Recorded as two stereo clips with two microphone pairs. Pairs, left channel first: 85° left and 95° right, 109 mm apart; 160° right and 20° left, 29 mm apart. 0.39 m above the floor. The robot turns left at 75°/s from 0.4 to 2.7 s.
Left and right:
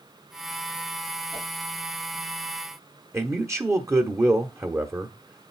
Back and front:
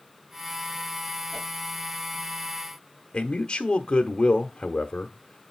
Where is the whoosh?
100° left, 5 m; by 1.5 s 90° left, 5 m.